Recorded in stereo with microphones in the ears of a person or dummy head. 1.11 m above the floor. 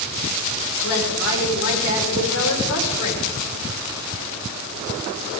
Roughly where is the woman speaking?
Left.